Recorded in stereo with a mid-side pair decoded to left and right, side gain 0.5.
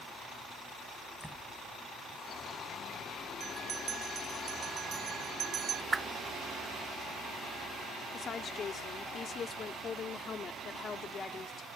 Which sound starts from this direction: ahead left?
A woman speaking, at 8.1 s.